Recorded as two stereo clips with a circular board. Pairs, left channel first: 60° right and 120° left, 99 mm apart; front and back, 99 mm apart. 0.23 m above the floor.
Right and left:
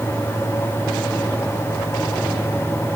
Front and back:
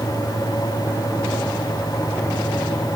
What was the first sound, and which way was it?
Only background noise.